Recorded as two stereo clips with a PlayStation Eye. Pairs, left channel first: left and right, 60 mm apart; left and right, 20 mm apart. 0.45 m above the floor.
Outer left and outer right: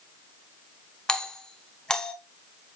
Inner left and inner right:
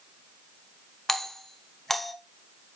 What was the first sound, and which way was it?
A doorbell, 15° left (ahead or behind).